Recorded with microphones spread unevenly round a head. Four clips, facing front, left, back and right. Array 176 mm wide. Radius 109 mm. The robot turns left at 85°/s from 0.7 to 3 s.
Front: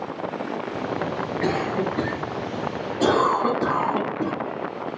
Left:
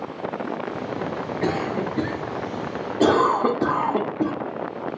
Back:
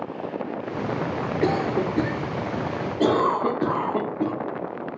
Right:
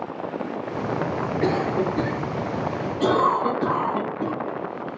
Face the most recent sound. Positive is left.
turn(degrees=85)